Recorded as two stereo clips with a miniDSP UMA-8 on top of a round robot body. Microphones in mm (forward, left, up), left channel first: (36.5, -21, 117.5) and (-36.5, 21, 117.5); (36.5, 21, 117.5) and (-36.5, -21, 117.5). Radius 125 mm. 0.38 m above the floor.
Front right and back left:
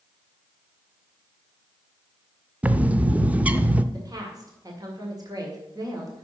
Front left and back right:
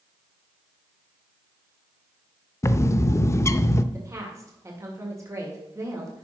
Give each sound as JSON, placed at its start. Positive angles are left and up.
{"t": 2.6, "sound": "a bird", "azimuth_deg": 80, "distance_m": 0.6}
{"t": 3.9, "sound": "a woman speaking", "azimuth_deg": 170, "distance_m": 2.0}